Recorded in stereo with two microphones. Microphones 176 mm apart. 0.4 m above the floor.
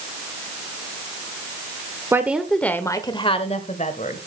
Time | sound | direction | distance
2.1 | a woman speaking | 15° right (ahead or behind) | 1.0 m